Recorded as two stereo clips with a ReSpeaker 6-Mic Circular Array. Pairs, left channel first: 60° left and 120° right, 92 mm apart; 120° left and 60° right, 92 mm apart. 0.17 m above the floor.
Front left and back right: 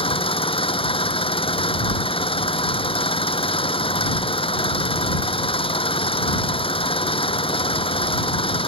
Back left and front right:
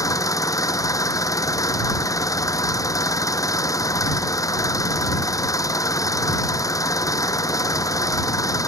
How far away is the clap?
No clap in this recording.